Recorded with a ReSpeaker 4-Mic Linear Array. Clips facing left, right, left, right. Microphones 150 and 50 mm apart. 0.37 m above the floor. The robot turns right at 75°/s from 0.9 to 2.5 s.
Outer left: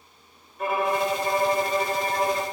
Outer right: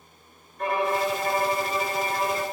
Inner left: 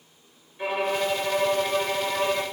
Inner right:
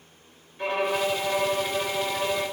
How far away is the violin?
About 1.4 m.